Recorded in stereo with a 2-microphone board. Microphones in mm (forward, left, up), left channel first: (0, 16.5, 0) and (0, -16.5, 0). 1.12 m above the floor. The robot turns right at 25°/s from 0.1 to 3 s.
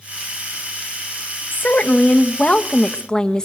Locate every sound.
1.5 s a woman speaking: 120° left, 0.9 m; by 3.5 s 155° left, 0.9 m